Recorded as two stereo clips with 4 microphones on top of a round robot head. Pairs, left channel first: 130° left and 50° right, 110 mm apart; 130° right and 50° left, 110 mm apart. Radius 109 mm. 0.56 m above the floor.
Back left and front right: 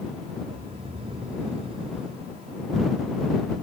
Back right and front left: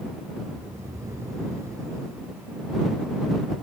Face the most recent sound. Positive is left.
turn(degrees=-15)